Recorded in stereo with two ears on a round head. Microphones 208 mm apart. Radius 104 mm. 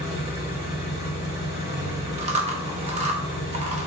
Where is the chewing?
30° right (ahead or behind), 0.6 m.